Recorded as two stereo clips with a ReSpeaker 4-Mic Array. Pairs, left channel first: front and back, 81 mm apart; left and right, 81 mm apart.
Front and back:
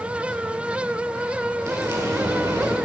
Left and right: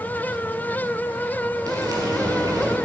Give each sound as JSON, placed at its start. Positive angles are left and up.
{"t": 1.7, "sound": "frying", "azimuth_deg": -130, "distance_m": 3.5}